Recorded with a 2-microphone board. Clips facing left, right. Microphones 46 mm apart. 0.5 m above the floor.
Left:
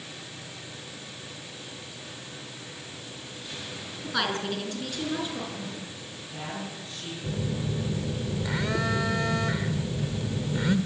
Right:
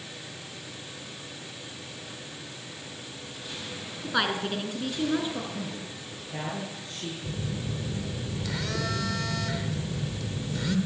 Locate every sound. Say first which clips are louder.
4.0 s a woman speaking: right 1 dB; 10° right (ahead or behind), 5 m; by 5.4 s 15° right (ahead or behind), 6 m
5.5 s a man speaking: right 1 dB; 40° right (ahead or behind), 7 m
7.2 s a phone buzzing: left 6 dB; 20° left (ahead or behind), 1.8 m